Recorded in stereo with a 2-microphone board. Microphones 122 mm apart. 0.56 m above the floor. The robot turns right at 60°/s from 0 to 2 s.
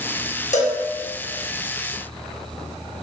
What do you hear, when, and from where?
0.5 s a cowbell: 70° left (ahead or behind), 0.6 m; by 0.8 s 80° left, 0.6 m